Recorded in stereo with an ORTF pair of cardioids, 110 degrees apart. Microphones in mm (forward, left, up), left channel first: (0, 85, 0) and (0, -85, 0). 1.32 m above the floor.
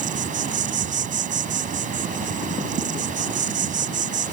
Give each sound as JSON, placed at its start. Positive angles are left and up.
{"t": 0.0, "sound": "an insect", "azimuth_deg": -50}